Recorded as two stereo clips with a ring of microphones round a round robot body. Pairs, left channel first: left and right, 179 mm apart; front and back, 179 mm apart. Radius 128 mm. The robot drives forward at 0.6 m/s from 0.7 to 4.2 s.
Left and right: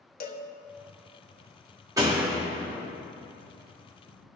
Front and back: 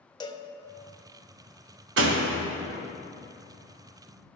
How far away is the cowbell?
About 1.2 m.